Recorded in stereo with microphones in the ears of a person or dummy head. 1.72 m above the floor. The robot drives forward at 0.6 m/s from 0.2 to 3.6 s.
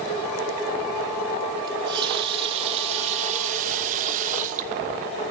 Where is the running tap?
25° right (ahead or behind), 2 m; by 5.3 s 45° right (ahead or behind), 1.3 m.